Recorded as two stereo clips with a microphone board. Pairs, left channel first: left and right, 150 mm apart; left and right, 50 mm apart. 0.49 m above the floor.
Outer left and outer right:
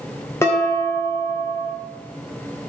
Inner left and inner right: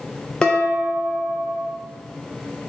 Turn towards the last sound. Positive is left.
turn(degrees=20)  # may be behind; listen again after turning